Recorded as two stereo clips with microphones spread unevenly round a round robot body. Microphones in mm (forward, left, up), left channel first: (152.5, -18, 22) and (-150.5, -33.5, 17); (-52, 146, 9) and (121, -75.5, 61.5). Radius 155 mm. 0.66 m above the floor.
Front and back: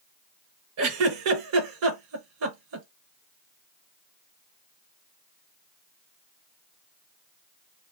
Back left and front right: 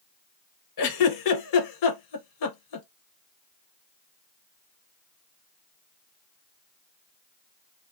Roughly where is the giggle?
Behind left.